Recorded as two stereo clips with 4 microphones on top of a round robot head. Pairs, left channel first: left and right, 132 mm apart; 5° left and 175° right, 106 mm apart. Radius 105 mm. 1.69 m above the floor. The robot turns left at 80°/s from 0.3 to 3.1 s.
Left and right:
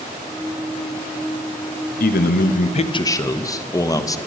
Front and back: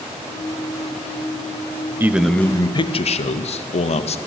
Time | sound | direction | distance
2.0 | a man speaking | 115° left | 0.8 m